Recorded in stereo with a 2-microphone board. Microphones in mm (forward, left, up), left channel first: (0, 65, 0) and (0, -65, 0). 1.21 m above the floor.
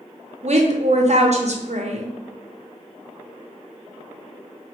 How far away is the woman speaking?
About 0.6 m.